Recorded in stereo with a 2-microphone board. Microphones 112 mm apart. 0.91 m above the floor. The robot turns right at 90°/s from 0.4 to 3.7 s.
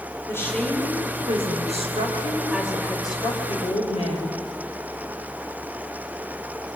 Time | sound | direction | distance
0.3 | a woman speaking | 155° left | 5 m